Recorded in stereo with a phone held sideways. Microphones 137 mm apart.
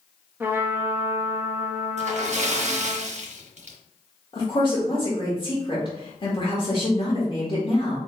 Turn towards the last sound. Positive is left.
turn(degrees=40)  # may be behind; listen again after turning